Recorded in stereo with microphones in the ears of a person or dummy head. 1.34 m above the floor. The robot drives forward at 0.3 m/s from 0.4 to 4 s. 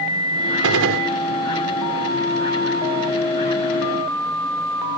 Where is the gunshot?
80° right.